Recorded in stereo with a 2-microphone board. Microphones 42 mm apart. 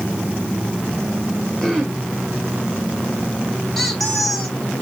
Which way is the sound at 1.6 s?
10° left (ahead or behind).